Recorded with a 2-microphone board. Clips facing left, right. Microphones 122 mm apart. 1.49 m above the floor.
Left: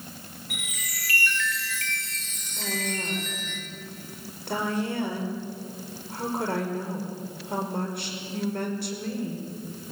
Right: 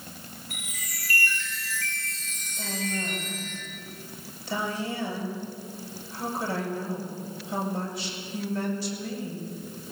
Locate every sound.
0.5 s a chime: 80° left, 6 m
2.6 s a woman speaking: 60° left (ahead or behind), 5.5 m